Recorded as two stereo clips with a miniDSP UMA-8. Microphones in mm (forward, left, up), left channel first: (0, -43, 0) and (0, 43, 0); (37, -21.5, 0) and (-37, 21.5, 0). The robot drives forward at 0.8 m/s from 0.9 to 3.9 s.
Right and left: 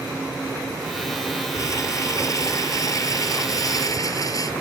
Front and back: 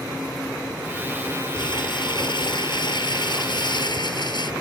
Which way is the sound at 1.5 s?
40° right.